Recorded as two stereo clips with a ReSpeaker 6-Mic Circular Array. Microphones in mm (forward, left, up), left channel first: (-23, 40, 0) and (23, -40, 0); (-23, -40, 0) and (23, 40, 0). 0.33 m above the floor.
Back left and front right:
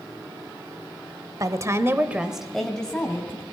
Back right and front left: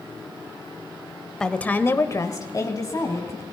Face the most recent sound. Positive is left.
turn(degrees=-170)